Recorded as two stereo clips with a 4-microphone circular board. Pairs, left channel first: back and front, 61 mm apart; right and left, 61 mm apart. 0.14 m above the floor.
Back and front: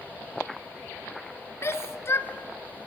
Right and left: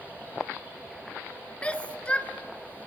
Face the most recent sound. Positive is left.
turn(degrees=-155)